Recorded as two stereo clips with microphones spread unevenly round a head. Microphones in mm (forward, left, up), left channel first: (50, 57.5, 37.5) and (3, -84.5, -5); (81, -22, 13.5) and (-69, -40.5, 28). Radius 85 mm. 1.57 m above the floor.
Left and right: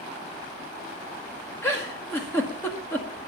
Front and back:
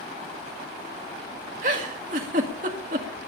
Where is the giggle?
145° left, 1.9 m.